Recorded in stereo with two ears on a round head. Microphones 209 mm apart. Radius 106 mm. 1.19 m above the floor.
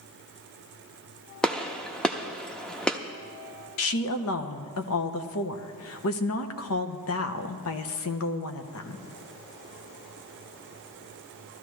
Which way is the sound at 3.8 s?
65° left (ahead or behind).